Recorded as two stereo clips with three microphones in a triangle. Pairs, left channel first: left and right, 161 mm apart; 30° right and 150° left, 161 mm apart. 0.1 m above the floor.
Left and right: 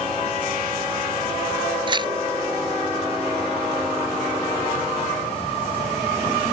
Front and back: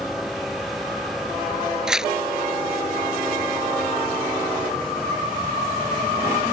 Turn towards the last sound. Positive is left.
turn(degrees=-125)